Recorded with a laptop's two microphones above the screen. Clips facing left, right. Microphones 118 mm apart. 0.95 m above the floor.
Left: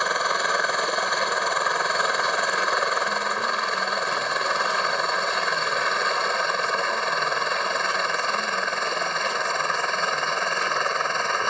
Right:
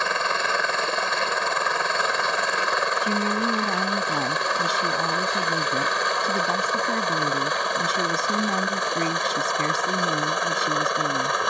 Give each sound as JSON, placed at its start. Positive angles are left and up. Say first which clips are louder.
{"t": 0.0, "sound": "a helicopter", "louder": "even", "side_deg": 5}
{"t": 3.0, "sound": "a woman speaking", "louder": "right 2 dB", "side_deg": -75}